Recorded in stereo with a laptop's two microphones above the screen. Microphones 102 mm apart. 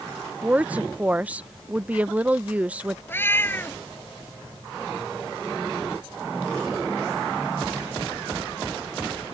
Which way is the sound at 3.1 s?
20° left (ahead or behind).